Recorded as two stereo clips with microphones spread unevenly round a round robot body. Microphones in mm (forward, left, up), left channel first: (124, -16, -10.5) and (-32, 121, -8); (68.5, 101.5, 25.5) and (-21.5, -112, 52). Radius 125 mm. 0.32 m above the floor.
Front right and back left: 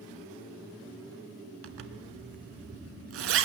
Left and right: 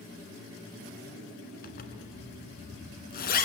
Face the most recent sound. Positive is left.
turn(degrees=125)